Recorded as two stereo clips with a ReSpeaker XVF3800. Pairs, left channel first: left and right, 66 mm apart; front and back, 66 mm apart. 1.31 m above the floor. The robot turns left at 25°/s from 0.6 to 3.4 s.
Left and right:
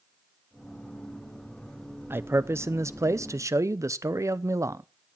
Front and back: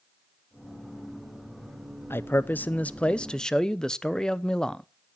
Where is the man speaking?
45° right, 0.6 m; by 4.8 s 80° right, 0.6 m.